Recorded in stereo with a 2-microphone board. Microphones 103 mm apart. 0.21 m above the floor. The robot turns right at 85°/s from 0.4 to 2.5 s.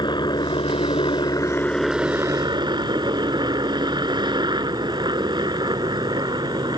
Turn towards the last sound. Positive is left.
turn(degrees=-125)